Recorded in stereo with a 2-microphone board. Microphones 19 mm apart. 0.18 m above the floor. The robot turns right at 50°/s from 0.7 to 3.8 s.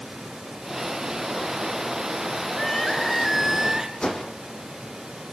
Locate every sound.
2.5 s crying: 150° left, 3 m; by 3.9 s 145° right, 3 m
4.0 s a whoosh: 45° left (ahead or behind), 4 m